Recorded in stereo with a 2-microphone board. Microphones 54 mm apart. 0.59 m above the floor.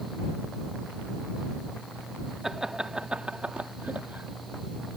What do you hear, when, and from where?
2.4 s laughter: 10° right (ahead or behind); by 5.0 s 35° right (ahead or behind)